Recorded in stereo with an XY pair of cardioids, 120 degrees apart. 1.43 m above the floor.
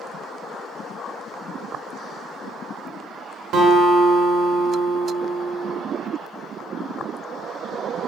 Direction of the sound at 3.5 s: 65° right.